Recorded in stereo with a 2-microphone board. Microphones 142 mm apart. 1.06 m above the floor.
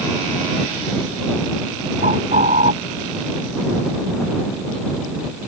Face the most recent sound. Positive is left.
turn(degrees=-85)